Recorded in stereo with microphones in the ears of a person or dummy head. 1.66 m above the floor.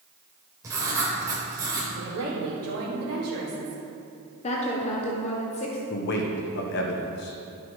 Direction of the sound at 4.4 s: 35° left (ahead or behind).